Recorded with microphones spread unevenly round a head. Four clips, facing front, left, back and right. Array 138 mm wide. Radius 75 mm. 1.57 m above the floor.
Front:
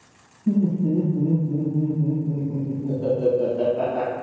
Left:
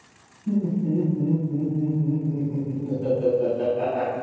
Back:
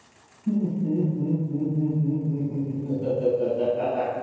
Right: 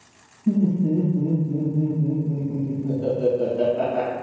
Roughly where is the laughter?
Right.